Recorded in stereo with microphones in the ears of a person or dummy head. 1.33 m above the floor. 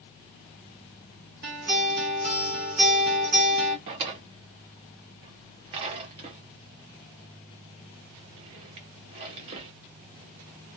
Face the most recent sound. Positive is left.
turn(degrees=-35)  # may be behind; listen again after turning